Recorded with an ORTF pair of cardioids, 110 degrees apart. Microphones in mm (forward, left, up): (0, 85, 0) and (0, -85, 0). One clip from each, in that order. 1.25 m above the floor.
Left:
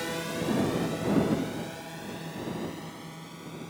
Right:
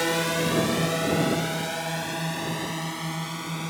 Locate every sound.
0.0 s a drone: 50° right; by 3.7 s 70° right